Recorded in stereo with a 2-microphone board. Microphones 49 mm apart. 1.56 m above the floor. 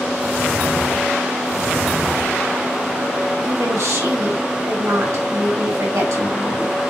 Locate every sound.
3.4 s a woman speaking: 80° right, 4 m